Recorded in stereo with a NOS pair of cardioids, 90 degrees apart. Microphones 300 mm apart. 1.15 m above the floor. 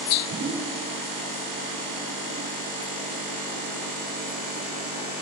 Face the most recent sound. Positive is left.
turn(degrees=-35)